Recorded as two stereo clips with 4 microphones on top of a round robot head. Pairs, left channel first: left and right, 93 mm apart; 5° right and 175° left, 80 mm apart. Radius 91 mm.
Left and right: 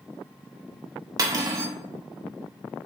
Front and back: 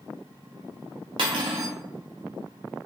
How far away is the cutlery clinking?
About 0.6 m.